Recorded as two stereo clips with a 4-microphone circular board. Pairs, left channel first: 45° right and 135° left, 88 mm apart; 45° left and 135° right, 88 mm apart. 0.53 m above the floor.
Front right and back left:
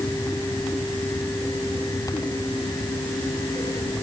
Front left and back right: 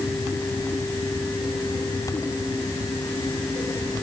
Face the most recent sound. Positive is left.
No sound to turn to.